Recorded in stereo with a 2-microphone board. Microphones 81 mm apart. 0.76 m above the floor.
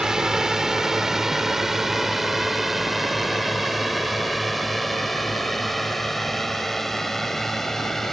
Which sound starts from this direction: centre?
A drone, at 0.0 s.